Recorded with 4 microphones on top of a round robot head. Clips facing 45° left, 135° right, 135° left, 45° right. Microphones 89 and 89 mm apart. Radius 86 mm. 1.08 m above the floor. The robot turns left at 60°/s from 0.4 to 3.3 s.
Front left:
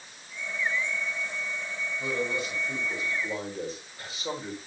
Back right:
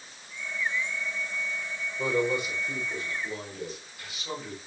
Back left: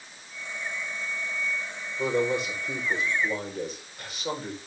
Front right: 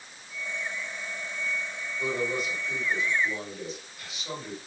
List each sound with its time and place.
2.0 s a man speaking: 175° left, 5.5 m; by 4.6 s 95° left, 5.5 m